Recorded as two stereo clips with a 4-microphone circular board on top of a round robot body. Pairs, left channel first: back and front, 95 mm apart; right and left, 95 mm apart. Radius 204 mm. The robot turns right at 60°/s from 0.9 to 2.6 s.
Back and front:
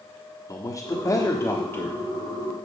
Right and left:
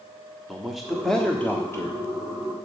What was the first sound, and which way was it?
A man speaking, straight behind.